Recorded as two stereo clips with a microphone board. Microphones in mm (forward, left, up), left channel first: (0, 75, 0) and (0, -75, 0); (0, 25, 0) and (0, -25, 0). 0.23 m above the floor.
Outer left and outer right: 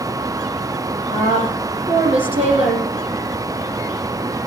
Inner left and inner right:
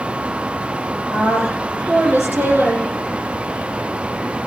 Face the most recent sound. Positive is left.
turn(degrees=-45)  # may be behind; listen again after turning